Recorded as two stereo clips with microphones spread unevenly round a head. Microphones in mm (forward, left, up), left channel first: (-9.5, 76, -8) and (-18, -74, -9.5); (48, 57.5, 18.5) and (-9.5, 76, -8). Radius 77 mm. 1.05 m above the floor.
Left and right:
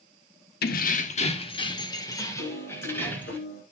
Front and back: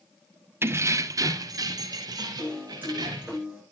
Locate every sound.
0.6 s keys jangling: 110° left, 1.2 m; by 3.4 s 165° left, 3.5 m
2.4 s a piano: 100° left, 6.5 m